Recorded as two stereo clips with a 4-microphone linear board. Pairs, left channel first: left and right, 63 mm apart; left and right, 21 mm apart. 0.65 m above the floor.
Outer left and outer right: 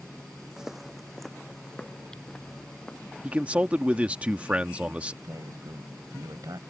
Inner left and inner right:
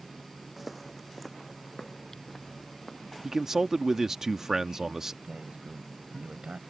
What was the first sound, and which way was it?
Footsteps, 10° right (ahead or behind).